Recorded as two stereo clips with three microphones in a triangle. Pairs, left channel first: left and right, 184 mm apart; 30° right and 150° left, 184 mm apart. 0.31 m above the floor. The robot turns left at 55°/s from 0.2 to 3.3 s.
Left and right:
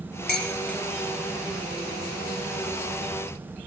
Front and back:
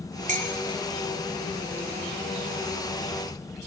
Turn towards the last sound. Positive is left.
turn(degrees=-55)